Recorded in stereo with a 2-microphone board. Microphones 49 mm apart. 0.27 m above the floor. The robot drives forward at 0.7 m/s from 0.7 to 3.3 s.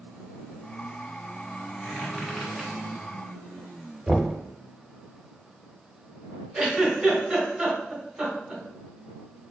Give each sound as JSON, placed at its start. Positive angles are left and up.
{"t": 1.8, "sound": "a squeak", "side_deg": 0, "distance_m": 1.3}
{"t": 4.1, "sound": "knocking", "side_deg": -10, "distance_m": 0.6}
{"t": 6.5, "sound": "a giggle", "side_deg": -15, "distance_m": 1.3}